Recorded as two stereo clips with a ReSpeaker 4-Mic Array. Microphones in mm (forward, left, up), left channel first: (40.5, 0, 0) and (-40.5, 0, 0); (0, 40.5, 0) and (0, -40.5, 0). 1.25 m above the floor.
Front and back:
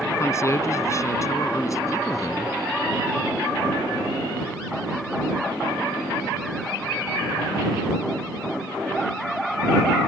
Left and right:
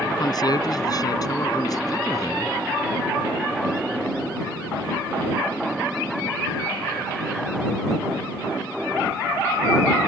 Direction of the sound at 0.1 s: 55° left.